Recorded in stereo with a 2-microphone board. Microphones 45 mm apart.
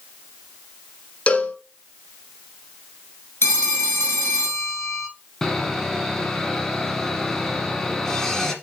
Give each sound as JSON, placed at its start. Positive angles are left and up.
{"t": 1.3, "sound": "a cowbell", "side_deg": 30, "distance_m": 1.2}
{"t": 3.4, "sound": "a phone ringing", "side_deg": 65, "distance_m": 2.5}
{"t": 5.4, "sound": "sawing", "side_deg": 15, "distance_m": 1.3}